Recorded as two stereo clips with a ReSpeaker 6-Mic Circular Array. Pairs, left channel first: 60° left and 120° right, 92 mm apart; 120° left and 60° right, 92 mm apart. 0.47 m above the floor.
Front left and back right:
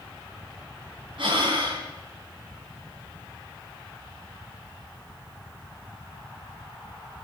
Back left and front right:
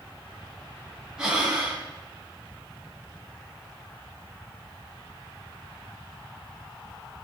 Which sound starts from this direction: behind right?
Breathing, at 1.2 s.